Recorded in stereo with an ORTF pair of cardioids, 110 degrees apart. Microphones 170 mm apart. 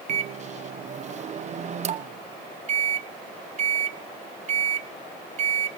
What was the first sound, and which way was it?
A microwave, 45° right.